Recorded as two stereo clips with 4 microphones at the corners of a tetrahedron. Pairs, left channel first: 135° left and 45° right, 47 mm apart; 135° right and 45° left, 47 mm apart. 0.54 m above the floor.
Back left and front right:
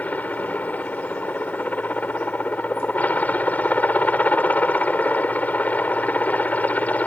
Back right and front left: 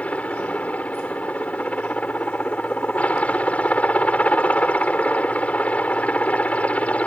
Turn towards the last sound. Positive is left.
turn(degrees=175)